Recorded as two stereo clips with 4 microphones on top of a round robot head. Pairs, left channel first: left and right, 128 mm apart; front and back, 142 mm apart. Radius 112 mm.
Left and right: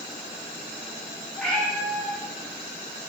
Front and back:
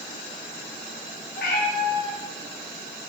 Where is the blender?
No blender in this recording.